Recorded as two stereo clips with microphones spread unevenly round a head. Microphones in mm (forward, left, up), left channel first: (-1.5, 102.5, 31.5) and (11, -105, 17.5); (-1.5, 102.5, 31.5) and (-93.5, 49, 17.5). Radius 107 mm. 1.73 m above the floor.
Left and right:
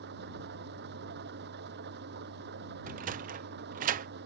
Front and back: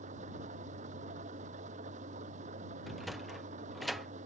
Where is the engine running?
130° right.